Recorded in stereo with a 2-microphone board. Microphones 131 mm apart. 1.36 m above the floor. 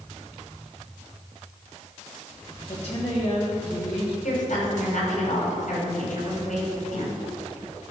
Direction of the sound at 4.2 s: 85° left.